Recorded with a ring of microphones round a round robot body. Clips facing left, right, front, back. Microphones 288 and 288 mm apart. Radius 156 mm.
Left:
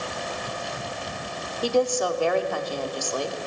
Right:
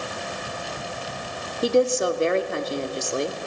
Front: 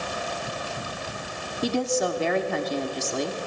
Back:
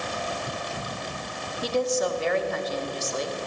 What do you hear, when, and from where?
1.6 s a woman speaking: 25° right, 2.5 m